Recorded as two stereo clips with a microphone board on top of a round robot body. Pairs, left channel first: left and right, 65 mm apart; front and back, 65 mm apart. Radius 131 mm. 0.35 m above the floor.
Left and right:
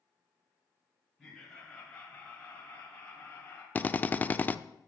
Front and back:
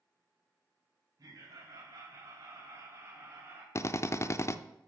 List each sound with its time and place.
1.2 s laughter: 175° left, 3.5 m; by 3.6 s 145° left, 2.5 m
3.8 s a drill: 30° left, 0.7 m